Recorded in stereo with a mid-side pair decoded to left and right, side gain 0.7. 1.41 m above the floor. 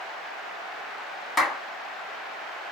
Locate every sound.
1.4 s a clap: 15° left, 1.8 m